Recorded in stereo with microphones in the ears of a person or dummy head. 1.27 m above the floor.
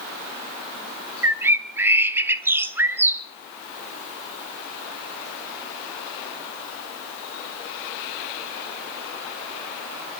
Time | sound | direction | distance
1.2 | a bird | 10° right (ahead or behind) | 0.5 m